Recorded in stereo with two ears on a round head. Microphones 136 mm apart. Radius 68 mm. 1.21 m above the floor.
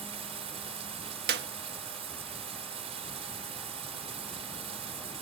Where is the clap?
70° right (ahead or behind).